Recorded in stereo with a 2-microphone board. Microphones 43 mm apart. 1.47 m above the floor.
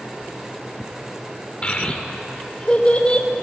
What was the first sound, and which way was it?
A child speaking, 25° left (ahead or behind).